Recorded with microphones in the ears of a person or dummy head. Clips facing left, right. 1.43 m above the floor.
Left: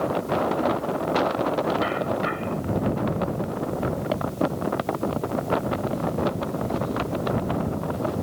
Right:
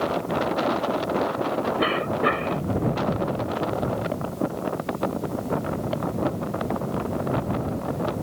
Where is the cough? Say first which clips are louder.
Right 1 dB; 85° right.